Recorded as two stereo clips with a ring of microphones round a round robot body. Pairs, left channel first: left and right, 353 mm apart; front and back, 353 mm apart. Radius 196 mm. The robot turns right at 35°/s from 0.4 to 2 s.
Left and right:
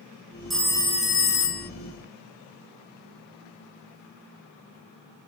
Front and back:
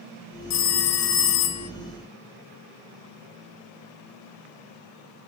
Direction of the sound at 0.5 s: Straight ahead.